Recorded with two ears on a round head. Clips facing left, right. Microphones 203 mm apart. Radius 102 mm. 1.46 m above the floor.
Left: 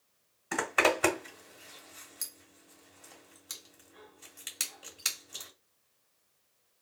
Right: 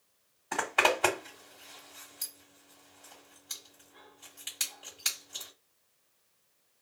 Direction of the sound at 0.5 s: 30° left (ahead or behind).